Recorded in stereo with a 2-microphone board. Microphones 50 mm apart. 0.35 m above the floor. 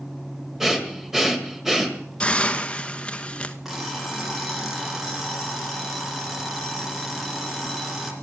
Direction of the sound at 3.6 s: 5° right (ahead or behind).